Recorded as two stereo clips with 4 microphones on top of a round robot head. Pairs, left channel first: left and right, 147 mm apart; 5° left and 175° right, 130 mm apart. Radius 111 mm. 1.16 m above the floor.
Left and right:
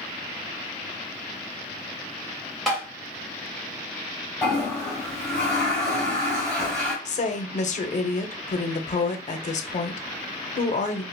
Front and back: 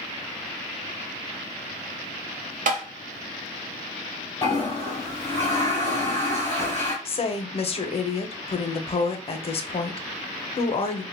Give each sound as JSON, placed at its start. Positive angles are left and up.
{"t": 2.7, "sound": "tapping", "azimuth_deg": 180, "distance_m": 0.6}
{"t": 4.4, "sound": "a toilet flushing", "azimuth_deg": 35, "distance_m": 1.0}
{"t": 7.0, "sound": "a woman speaking", "azimuth_deg": 50, "distance_m": 0.6}